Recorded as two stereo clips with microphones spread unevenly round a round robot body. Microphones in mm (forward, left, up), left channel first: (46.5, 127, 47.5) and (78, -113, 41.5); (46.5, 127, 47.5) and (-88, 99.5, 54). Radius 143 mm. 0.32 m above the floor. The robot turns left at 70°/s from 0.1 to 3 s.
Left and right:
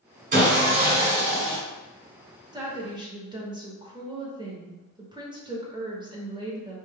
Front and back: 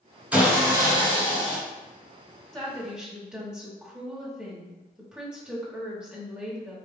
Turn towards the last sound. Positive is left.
turn(degrees=-90)